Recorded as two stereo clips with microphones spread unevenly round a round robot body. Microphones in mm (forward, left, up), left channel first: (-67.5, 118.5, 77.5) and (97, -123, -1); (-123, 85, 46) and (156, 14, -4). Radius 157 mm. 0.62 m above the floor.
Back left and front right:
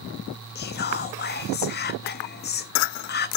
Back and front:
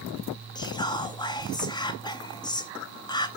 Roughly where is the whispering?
Left.